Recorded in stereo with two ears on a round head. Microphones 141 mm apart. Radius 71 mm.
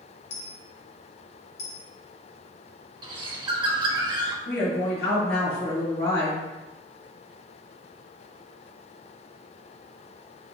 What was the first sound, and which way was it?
A dropped coin, 40° left (ahead or behind).